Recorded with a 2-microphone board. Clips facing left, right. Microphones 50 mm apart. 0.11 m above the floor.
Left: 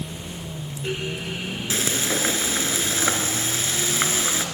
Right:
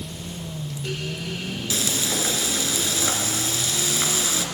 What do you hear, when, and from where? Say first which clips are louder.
1.7 s frying: left 2 dB; 30° left (ahead or behind), 1.9 m